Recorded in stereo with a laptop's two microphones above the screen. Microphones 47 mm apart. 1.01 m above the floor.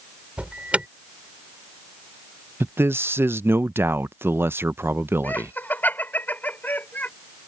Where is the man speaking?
50° right (ahead or behind).